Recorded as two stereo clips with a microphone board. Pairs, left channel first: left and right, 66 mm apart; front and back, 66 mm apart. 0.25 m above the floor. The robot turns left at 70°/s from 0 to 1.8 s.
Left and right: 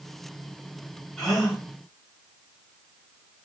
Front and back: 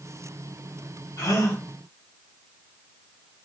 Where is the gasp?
15° left, 3 m; by 1.6 s 15° right, 3 m.